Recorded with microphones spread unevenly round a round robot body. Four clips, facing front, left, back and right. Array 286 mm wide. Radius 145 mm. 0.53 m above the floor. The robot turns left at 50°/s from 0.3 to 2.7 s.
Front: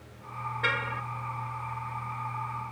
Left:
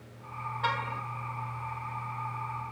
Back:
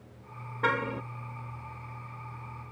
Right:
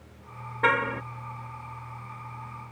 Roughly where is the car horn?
Behind right.